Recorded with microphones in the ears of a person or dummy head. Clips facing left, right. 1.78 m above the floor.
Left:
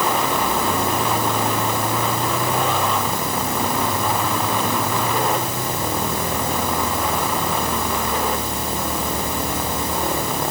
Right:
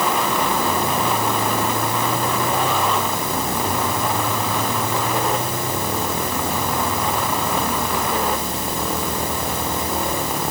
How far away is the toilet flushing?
No toilet flushing in this recording.